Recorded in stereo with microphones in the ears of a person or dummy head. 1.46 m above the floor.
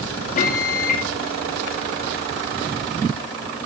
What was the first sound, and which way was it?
A microwave, 50° left (ahead or behind).